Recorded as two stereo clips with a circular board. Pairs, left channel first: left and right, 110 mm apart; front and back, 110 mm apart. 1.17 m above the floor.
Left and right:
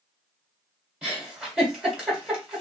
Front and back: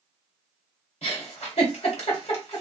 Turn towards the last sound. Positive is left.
turn(degrees=-10)